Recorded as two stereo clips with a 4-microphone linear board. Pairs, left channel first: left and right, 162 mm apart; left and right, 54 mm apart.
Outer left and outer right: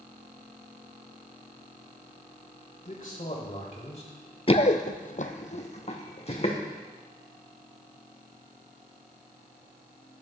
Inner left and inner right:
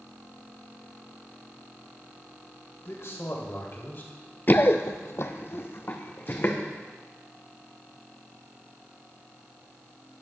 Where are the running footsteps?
40° left (ahead or behind), 0.6 m.